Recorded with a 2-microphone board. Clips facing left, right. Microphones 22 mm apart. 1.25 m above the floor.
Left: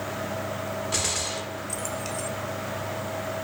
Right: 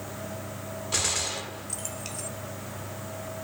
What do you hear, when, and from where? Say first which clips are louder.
0.9 s a gunshot: right 2 dB; 5° right (ahead or behind), 1.5 m